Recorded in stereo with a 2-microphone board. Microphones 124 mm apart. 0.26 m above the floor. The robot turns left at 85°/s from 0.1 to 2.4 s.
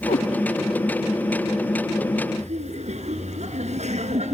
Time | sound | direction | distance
0.1 | a cat meowing | 85° left | 3.5 m
2.4 | laughter | 65° right (ahead or behind) | 3 m